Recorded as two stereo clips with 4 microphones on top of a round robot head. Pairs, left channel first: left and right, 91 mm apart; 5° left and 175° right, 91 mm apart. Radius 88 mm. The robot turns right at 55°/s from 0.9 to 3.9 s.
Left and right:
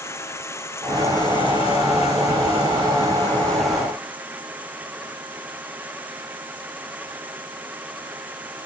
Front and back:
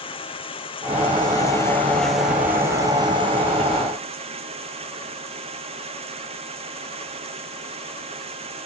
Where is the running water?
30° left; by 8.7 s 165° right.